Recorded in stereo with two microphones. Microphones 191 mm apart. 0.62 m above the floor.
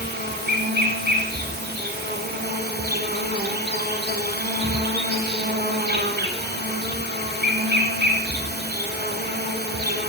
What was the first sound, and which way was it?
An insect, 65° right (ahead or behind).